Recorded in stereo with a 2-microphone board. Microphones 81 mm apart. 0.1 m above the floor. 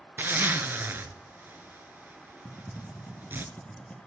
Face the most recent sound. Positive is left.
turn(degrees=20)  # may be behind; listen again after turning